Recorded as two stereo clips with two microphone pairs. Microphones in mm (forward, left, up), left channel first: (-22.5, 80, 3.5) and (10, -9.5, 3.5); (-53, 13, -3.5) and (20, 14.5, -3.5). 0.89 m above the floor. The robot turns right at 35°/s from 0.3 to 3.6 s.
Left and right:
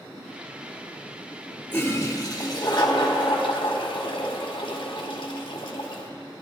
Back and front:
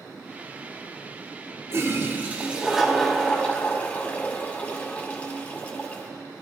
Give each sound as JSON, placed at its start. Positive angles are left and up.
{"t": 1.7, "sound": "a toilet flushing", "azimuth_deg": 45, "distance_m": 1.9}